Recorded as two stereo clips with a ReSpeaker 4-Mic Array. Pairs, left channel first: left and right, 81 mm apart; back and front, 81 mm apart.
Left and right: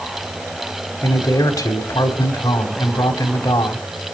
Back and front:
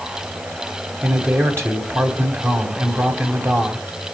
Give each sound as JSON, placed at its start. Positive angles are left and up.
{"t": 1.0, "sound": "a man speaking", "azimuth_deg": 55, "distance_m": 3.0}